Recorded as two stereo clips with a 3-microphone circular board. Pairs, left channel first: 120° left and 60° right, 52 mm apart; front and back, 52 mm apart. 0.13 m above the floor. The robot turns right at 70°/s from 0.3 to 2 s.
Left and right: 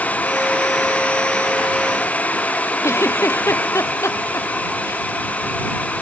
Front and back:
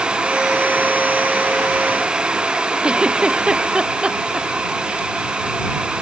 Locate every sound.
2.8 s a giggle: 110° left